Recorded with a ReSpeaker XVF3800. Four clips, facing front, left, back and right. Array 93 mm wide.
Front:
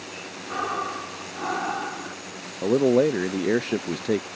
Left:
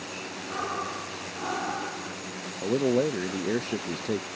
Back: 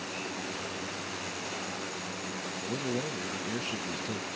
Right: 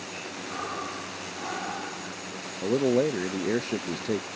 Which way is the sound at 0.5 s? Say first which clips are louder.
Left 3 dB, front 10 dB; 15° left.